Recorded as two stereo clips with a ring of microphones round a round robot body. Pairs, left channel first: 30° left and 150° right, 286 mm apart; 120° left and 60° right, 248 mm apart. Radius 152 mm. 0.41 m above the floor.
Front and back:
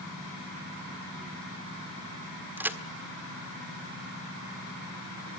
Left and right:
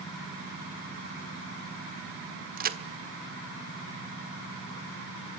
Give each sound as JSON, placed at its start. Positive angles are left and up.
{"t": 2.6, "sound": "a crack", "azimuth_deg": -70, "distance_m": 1.5}